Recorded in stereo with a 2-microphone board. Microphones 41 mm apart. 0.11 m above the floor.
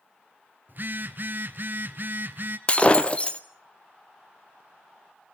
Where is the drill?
I don't hear a drill.